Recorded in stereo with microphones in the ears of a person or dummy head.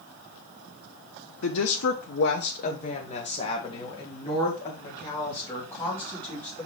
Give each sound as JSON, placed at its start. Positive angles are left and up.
{"t": 1.4, "sound": "a woman speaking", "side_deg": 85, "distance_m": 0.9}